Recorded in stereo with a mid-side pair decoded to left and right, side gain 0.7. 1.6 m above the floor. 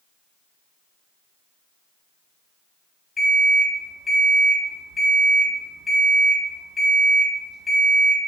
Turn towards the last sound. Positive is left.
turn(degrees=20)